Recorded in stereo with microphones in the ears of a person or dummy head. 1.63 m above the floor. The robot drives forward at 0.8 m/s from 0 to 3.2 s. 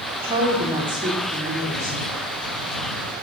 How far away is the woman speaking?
About 0.7 m.